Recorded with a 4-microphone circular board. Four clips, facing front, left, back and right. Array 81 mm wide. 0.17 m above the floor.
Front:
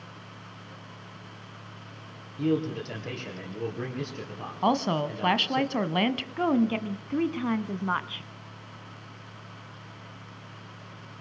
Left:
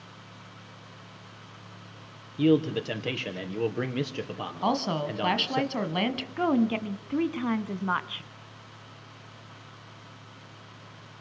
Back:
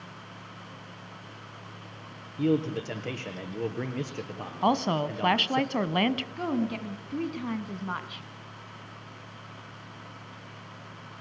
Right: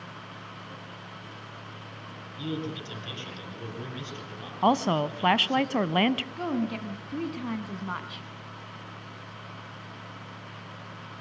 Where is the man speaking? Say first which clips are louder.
Left 11 dB, back 1 dB; 105° left, 4 m.